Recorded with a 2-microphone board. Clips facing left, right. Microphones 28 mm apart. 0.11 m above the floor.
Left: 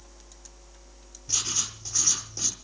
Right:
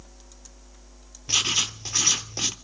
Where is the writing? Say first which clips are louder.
Right 8 dB; 45° right (ahead or behind), 0.7 m.